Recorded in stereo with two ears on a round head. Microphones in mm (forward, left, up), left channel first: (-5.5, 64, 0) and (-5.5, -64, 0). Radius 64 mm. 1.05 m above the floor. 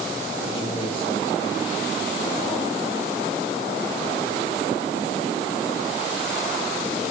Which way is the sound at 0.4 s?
35° left (ahead or behind).